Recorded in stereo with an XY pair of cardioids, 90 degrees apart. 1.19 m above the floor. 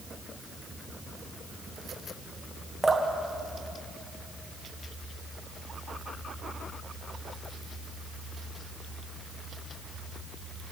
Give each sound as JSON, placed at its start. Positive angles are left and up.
{"t": 2.8, "sound": "dripping", "azimuth_deg": -20, "distance_m": 1.7}